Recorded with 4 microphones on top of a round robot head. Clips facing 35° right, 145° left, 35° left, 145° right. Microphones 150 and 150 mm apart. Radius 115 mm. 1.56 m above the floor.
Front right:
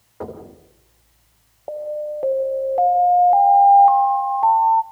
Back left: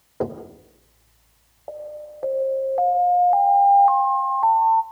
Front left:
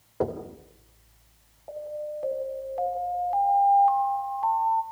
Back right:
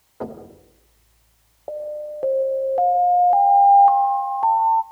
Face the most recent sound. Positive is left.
turn(degrees=-105)